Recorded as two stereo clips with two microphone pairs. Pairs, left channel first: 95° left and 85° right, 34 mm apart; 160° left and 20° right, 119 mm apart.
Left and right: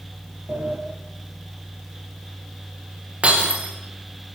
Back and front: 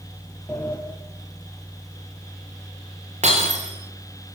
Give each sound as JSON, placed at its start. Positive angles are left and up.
{"t": 0.5, "sound": "a sliding door", "azimuth_deg": -120, "distance_m": 4.5}
{"t": 3.2, "sound": "breaking glass", "azimuth_deg": -35, "distance_m": 8.0}